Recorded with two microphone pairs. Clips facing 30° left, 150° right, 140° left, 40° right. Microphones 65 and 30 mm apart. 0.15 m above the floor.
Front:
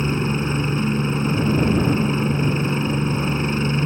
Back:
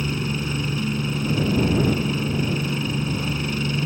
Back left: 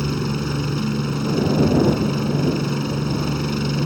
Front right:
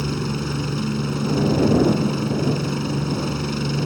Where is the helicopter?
55° left.